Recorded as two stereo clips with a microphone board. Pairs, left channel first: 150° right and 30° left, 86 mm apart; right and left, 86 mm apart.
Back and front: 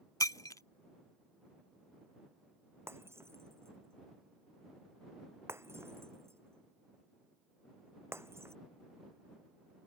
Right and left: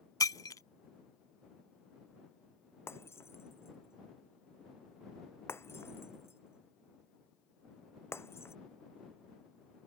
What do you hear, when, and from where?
0.2 s breaking glass: 120° right
2.9 s breaking glass: 30° right